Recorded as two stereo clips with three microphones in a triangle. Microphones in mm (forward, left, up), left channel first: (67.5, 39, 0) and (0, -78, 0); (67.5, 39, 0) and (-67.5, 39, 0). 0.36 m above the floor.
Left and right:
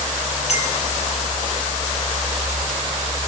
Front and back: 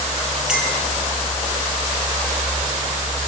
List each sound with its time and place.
0.5 s a clink: 95° left, 6.5 m